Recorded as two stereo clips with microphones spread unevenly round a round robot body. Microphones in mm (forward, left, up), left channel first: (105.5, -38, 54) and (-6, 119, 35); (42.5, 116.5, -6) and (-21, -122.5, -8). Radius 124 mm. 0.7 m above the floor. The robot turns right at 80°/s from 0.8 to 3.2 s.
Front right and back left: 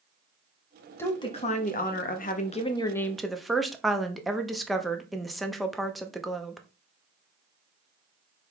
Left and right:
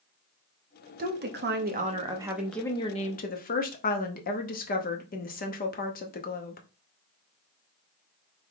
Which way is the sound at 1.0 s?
135° right.